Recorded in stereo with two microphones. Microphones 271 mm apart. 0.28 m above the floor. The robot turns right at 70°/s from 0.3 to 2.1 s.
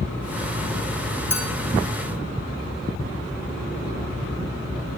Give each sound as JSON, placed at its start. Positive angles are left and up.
{"t": 1.3, "sound": "a clink", "side_deg": -10, "distance_m": 2.0}